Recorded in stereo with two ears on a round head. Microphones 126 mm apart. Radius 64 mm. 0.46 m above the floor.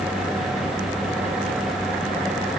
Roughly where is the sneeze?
I don't hear a sneeze.